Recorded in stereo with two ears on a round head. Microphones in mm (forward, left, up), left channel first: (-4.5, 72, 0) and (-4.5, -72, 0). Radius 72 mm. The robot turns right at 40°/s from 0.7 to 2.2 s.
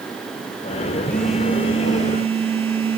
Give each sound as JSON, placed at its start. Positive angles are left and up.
{"t": 1.1, "sound": "a phone buzzing", "azimuth_deg": 170, "distance_m": 2.5}